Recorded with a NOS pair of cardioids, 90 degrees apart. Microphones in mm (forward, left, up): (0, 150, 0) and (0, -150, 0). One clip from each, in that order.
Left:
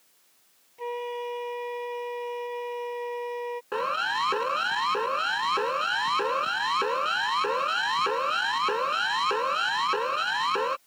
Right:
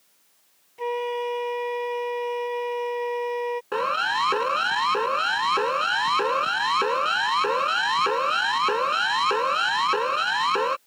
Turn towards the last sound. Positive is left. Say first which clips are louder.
# right 3 dB
turn(degrees=-20)